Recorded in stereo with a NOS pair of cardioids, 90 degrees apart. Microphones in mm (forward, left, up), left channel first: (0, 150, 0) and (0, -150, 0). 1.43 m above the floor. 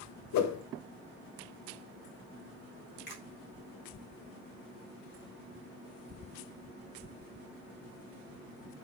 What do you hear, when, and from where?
0.3 s a whoosh: 65° left, 1.1 m
3.1 s a finger snap: 35° left, 3.5 m